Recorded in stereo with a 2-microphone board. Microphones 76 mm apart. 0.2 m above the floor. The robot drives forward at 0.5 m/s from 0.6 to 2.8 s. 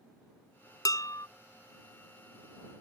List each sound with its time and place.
0.8 s dishes clattering: 55° left (ahead or behind); by 1.3 s 50° left (ahead or behind)